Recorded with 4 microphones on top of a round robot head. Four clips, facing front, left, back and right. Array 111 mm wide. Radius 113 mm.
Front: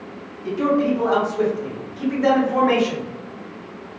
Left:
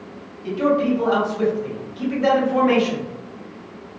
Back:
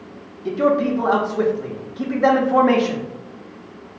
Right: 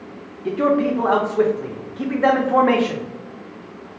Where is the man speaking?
120° right, 1.2 m.